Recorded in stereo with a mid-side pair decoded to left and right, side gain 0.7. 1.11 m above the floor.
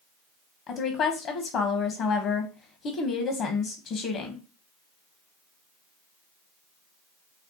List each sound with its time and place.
0.7 s a woman speaking: 50° left, 0.9 m